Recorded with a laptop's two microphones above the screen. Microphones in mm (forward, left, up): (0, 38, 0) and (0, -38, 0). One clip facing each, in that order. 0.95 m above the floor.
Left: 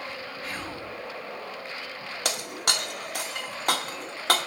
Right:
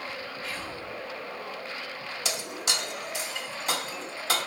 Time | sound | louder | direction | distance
0.4 | whispering | left 1 dB | 50° left (ahead or behind) | 1.6 m
2.2 | breaking glass | left 4 dB | 60° left (ahead or behind) | 0.8 m